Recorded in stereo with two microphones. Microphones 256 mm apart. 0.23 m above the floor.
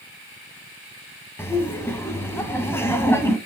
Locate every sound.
1.4 s laughter: 10° left (ahead or behind), 1.5 m